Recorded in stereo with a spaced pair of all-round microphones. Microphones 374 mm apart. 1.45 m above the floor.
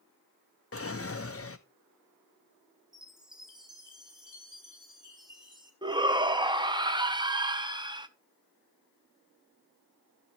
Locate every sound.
0.7 s a drawer: 40° left (ahead or behind), 0.6 m
2.9 s a chime: 10° right (ahead or behind), 2.0 m
5.8 s a shout: 10° right (ahead or behind), 0.8 m